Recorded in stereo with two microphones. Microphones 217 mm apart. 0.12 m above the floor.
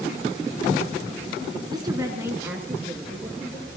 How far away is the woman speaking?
About 1.4 m.